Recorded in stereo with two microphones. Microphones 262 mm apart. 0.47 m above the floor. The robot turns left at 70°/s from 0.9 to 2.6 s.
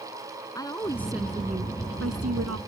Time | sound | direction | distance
0.6 | a woman speaking | 15° left | ?